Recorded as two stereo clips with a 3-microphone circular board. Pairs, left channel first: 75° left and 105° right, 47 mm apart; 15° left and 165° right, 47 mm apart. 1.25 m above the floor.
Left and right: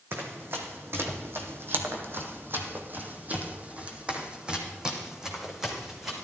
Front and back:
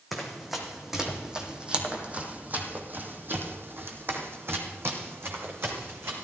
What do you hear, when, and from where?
0.1 s running footsteps: 80° right, 3 m; by 6.2 s 170° left, 3.5 m